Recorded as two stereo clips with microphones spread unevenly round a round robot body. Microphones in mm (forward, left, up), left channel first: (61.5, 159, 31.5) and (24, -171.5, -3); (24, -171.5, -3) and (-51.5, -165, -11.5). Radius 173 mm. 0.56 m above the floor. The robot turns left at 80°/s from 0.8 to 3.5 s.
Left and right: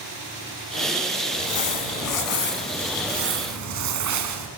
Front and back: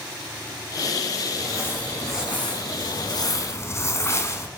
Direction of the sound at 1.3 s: 115° left.